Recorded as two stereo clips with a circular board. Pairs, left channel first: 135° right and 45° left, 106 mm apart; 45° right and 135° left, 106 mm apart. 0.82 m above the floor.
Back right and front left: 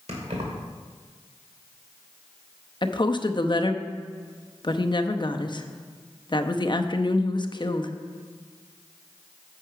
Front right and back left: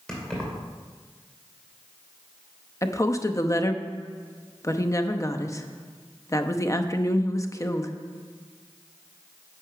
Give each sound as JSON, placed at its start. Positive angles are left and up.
{"t": 0.1, "sound": "keys jangling", "azimuth_deg": 40, "distance_m": 2.0}
{"t": 2.8, "sound": "a woman speaking", "azimuth_deg": -100, "distance_m": 0.7}